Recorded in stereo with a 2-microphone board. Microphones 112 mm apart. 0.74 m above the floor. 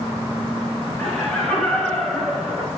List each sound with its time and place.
1.0 s laughter: 10° left (ahead or behind), 4.5 m; by 2.7 s centre (ahead or behind), 3.5 m